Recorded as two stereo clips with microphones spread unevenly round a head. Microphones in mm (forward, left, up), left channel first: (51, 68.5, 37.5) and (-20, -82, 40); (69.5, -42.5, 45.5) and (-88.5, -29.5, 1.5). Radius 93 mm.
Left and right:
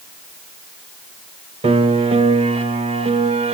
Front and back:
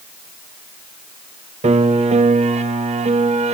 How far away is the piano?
About 1.1 m.